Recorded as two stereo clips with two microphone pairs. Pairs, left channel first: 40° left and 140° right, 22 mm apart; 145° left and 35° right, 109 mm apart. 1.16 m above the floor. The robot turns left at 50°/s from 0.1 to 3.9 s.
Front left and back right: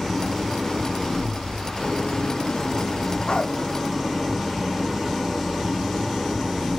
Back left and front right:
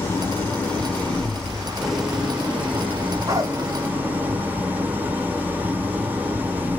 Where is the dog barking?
10° left, 0.7 m; by 3.6 s 5° right, 0.7 m.